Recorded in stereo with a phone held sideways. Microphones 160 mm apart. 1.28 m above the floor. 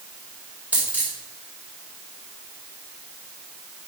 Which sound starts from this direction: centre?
A dropped coin, at 0.7 s.